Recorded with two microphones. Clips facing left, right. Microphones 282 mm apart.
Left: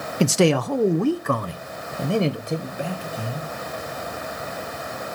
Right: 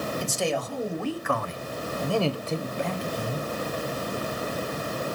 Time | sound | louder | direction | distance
0.2 | a man speaking | left 14 dB | 80° left | 1.0 m